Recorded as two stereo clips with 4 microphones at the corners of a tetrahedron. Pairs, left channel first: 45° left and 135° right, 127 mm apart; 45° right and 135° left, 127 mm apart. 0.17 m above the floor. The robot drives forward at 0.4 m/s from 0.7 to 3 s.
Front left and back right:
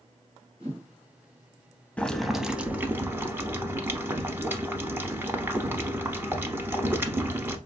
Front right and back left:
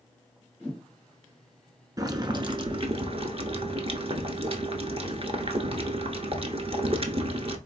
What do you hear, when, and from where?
0.6 s a whoosh: 125° right, 2.5 m
2.0 s boiling: 115° left, 0.5 m; by 7.6 s 155° left, 0.7 m